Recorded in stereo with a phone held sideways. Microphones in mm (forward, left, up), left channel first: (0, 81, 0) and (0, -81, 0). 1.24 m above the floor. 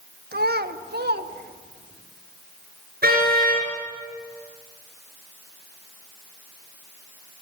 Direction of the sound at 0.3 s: 70° right (ahead or behind).